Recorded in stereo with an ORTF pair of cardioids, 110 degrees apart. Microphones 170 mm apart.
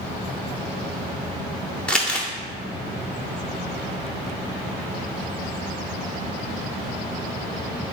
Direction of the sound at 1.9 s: 5° left.